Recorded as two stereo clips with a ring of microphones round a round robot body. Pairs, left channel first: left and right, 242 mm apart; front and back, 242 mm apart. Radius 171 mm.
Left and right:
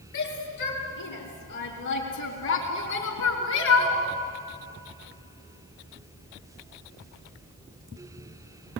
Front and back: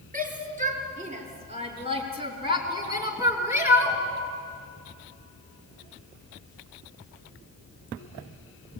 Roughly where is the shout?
Behind left.